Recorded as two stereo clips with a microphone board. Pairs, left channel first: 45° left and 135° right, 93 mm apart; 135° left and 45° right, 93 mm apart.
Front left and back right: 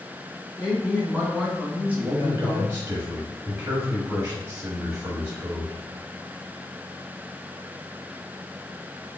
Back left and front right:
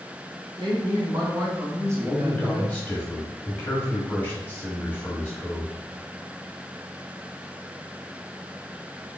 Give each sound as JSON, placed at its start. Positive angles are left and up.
{"t": 0.6, "sound": "a woman speaking", "azimuth_deg": -60, "distance_m": 1.8}
{"t": 2.0, "sound": "a man speaking", "azimuth_deg": -175, "distance_m": 1.0}